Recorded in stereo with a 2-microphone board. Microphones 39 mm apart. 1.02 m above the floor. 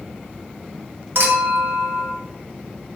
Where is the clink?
65° right (ahead or behind), 0.8 m.